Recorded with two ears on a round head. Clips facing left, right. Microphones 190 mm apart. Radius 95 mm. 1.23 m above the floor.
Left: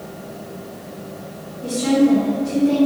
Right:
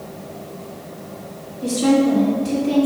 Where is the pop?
No pop in this recording.